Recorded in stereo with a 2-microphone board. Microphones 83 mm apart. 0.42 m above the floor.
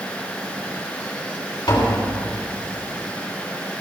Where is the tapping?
55° left (ahead or behind), 3 m.